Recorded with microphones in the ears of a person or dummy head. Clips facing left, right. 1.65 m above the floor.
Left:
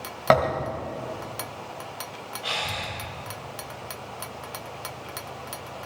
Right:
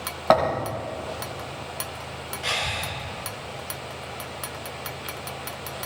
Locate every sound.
0.3 s a thud: 15° left (ahead or behind), 1.6 m
2.4 s breathing: 30° right (ahead or behind), 4.5 m